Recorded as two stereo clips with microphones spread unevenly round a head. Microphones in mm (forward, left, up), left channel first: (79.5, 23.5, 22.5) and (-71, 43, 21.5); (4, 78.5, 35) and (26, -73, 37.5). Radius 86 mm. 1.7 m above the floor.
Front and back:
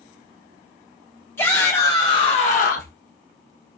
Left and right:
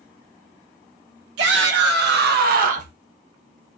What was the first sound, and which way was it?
A shout, 85° right.